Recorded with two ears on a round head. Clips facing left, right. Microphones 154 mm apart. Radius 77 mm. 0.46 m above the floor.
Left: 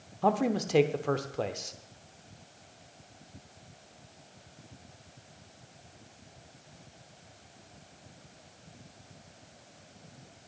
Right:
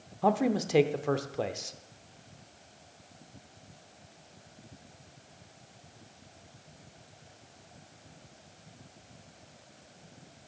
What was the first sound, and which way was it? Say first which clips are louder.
A man speaking: right 1 dB; 5° right (ahead or behind).